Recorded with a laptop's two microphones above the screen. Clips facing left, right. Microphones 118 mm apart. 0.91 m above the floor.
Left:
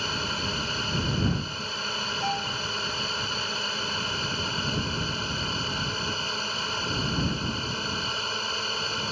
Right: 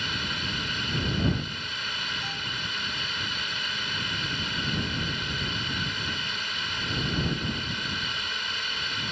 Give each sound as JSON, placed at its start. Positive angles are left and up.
{"t": 0.0, "sound": "a drone", "side_deg": 35}
{"t": 2.2, "sound": "a violin", "side_deg": 70}